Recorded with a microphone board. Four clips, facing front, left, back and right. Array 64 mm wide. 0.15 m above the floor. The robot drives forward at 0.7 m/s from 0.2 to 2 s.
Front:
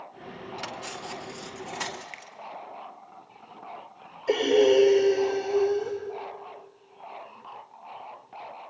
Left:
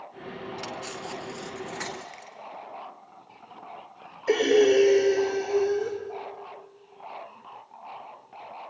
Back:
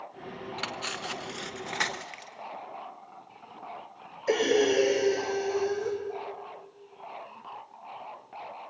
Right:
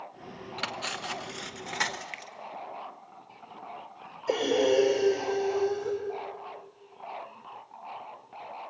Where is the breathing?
120° left, 3 m.